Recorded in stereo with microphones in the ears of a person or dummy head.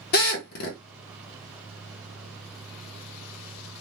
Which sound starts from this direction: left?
A drill, at 0.1 s.